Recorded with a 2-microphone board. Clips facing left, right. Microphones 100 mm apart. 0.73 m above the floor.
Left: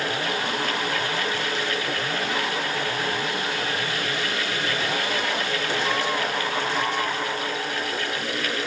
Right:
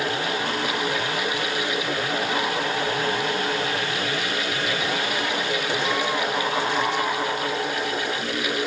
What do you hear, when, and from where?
Only background noise.